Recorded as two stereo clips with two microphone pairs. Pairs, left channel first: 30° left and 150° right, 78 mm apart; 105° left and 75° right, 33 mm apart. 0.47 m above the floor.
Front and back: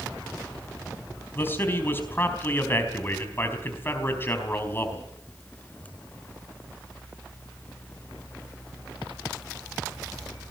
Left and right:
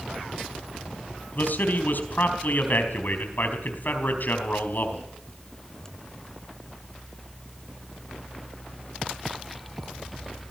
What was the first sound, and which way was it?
A man speaking, 90° left.